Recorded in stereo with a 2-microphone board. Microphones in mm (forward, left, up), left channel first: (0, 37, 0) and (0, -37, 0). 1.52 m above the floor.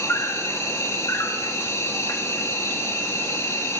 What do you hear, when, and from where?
0.0 s an insect: 40° left (ahead or behind), 1.4 m